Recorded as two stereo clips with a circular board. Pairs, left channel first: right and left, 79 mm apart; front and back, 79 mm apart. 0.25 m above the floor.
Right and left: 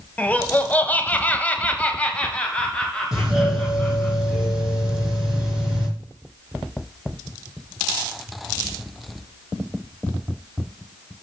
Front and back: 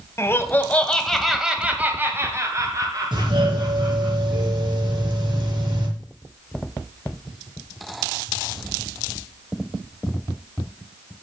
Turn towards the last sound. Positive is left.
turn(degrees=175)